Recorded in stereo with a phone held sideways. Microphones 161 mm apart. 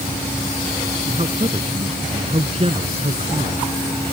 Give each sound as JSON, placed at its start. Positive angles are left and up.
{"t": 1.1, "sound": "a man speaking", "side_deg": -40}